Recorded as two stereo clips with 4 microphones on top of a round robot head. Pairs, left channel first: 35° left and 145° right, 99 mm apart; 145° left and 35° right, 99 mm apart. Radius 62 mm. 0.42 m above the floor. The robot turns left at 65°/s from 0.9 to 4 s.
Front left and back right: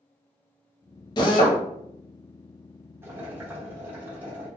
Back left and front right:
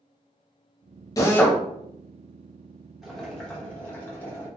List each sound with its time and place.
1.2 s a drill: 85° left, 0.7 m; by 1.6 s 60° left, 0.7 m
3.0 s boiling: 120° right, 1.4 m; by 4.5 s straight behind, 1.4 m